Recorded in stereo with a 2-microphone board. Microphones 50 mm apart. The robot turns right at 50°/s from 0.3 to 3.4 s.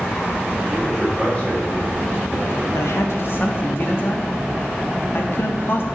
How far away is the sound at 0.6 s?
About 4 m.